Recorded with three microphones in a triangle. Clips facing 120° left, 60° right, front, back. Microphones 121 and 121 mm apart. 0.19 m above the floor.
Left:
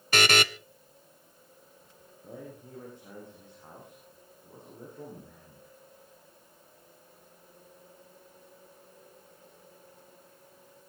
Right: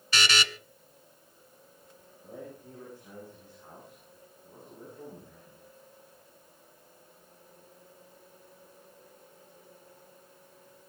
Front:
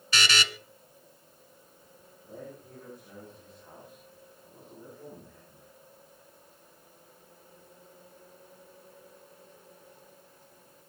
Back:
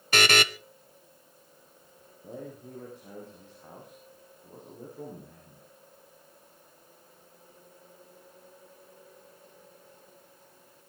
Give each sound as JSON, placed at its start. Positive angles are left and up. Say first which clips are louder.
{"t": 0.1, "sound": "a buzzer", "louder": "left 5 dB, back 5 dB", "azimuth_deg": 150, "distance_m": 0.6}
{"t": 2.2, "sound": "a man speaking", "louder": "even, back 3 dB", "azimuth_deg": -175, "distance_m": 9.5}